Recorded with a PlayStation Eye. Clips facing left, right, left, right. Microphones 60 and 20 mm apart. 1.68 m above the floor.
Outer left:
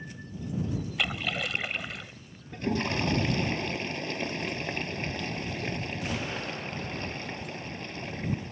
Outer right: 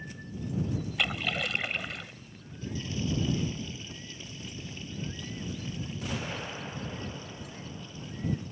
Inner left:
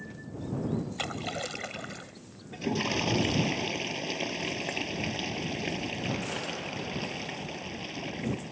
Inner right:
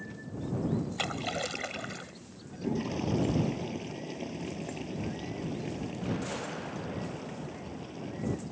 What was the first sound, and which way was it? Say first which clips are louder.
A splash: even, inner right 1 dB; centre (ahead or behind).